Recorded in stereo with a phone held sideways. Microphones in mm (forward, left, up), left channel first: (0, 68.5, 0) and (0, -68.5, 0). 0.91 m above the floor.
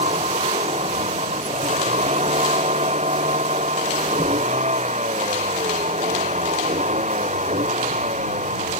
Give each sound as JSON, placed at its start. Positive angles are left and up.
{"t": 0.0, "sound": "a vehicle", "side_deg": -55}